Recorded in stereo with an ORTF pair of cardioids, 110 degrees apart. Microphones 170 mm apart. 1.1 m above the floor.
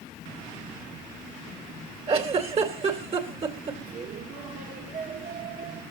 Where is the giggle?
35° right, 2.5 m.